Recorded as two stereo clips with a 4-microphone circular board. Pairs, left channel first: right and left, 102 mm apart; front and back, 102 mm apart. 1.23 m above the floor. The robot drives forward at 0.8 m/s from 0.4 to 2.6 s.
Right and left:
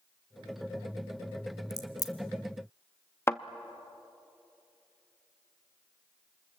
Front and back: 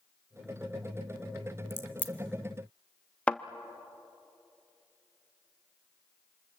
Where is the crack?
55° right, 1.3 m; by 2.1 s 70° right, 1.2 m.